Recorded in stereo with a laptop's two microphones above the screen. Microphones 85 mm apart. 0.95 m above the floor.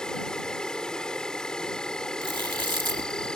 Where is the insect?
10° left (ahead or behind).